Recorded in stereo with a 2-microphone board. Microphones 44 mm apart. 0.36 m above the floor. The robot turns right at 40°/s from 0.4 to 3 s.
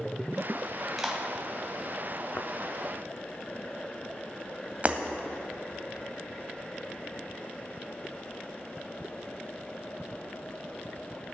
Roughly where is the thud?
Left.